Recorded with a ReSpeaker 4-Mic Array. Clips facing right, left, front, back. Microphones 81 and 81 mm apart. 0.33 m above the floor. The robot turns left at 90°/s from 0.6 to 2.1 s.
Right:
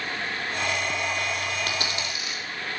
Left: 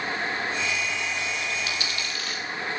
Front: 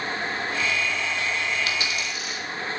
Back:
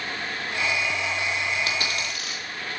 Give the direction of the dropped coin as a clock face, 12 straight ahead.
4 o'clock.